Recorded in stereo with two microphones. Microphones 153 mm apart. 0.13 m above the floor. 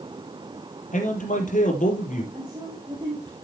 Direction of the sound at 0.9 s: 60° left (ahead or behind).